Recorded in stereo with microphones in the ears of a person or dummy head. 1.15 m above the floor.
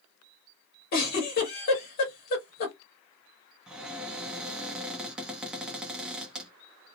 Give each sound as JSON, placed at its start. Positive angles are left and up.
{"t": 0.9, "sound": "a giggle", "side_deg": 50, "distance_m": 1.4}
{"t": 3.7, "sound": "a cupboard door", "side_deg": -5, "distance_m": 0.6}